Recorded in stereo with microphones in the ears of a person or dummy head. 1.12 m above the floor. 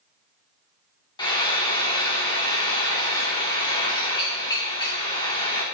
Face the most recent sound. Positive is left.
turn(degrees=25)  # may be behind; listen again after turning